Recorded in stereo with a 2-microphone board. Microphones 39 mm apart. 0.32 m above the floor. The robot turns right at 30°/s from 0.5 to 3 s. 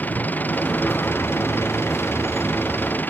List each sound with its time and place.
0.0 s an engine running: 50° left; by 3.1 s 125° left